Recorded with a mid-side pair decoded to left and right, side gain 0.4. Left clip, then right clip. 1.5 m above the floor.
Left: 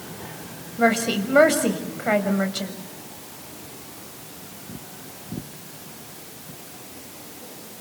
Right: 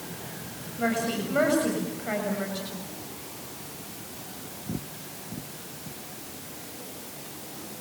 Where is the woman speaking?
70° left, 7 m.